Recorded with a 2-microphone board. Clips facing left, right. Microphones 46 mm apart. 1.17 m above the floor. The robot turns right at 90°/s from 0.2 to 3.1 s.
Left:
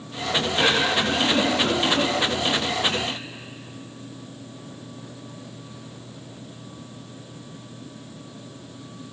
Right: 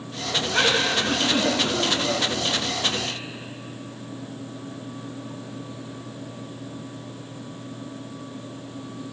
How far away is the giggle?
About 8.5 m.